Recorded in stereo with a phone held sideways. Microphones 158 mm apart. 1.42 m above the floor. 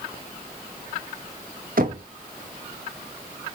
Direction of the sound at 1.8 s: 65° right (ahead or behind).